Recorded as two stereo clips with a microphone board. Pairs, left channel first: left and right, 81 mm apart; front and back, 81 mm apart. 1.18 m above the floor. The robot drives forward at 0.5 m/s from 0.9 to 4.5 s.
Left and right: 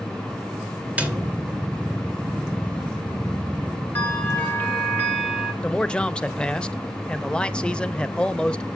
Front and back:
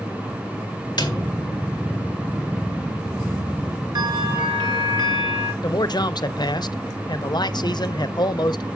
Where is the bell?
155° left, 1.5 m; by 5.5 s 160° left, 1.7 m.